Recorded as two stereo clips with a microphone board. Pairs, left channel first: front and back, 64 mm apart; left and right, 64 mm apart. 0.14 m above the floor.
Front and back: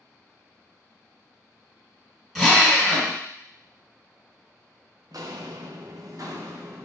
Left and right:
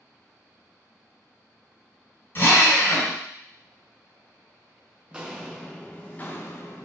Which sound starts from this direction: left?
A drill, at 2.4 s.